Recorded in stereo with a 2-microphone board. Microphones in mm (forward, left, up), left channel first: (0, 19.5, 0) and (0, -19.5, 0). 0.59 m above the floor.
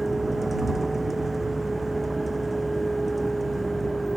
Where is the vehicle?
10° right (ahead or behind); by 4.2 s centre (ahead or behind).